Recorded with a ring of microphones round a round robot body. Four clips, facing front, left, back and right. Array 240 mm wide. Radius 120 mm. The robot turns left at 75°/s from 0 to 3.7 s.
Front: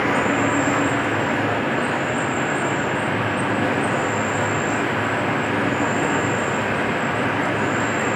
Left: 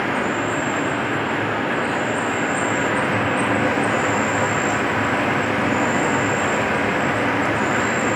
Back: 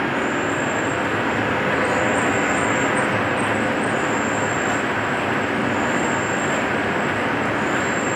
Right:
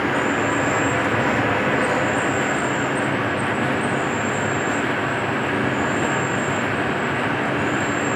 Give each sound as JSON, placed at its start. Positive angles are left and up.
{"t": 0.0, "sound": "an insect", "azimuth_deg": 10, "distance_m": 1.8}